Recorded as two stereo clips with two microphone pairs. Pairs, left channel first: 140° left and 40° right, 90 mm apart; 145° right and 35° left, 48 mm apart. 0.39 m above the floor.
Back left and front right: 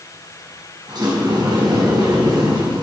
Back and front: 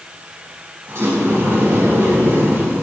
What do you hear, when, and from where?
0.9 s a sliding door: straight ahead, 3 m